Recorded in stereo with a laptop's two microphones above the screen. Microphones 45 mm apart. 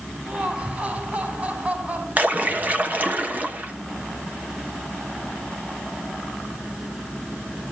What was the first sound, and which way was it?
Laughter, 35° right (ahead or behind).